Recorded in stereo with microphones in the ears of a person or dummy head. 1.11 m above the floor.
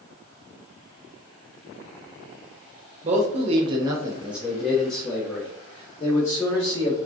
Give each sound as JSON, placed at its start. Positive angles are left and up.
{"t": 3.0, "sound": "a man speaking", "side_deg": -35, "distance_m": 0.6}